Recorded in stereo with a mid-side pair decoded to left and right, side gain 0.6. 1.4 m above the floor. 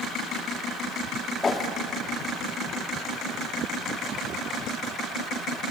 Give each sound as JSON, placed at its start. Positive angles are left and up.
{"t": 1.4, "sound": "a whoosh", "azimuth_deg": 25, "distance_m": 2.0}